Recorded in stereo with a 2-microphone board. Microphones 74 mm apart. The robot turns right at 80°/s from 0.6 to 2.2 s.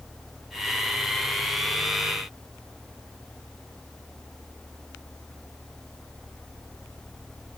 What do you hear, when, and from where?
Only background noise.